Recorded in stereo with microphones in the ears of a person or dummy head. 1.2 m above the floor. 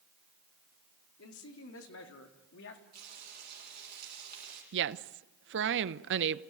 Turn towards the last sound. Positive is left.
turn(degrees=-65)  # may be behind; listen again after turning